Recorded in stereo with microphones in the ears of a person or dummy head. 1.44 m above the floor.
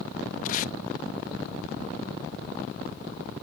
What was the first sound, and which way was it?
Tape being pulled, 45° left (ahead or behind).